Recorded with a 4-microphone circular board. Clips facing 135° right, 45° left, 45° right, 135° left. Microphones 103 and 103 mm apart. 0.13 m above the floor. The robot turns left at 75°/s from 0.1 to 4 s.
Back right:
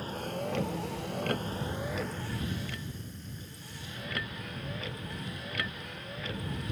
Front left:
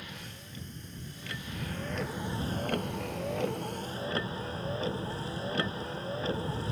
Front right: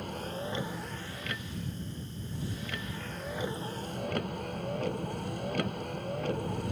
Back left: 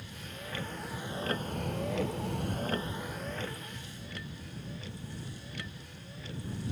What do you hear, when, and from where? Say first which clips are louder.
0.0 s a vehicle: back right 12 dB, front right 9 dB; 80° right; by 6.7 s 15° right